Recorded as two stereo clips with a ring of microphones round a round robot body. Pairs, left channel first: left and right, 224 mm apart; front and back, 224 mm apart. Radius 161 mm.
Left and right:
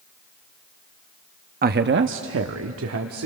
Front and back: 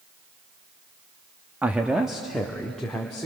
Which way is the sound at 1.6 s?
100° right.